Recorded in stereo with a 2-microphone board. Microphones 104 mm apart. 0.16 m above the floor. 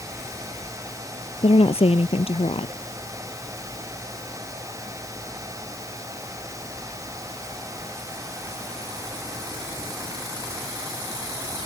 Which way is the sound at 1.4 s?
70° left (ahead or behind).